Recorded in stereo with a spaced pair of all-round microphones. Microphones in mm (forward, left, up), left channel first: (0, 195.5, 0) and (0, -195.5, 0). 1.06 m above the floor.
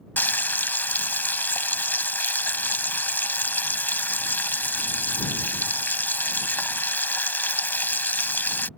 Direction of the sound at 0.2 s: 5° left (ahead or behind).